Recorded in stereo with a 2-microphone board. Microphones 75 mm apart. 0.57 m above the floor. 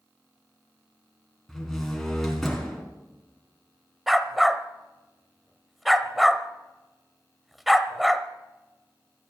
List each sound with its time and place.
1.5 s a door slam: 5° left (ahead or behind), 4 m
4.1 s a dog barking: centre (ahead or behind), 0.9 m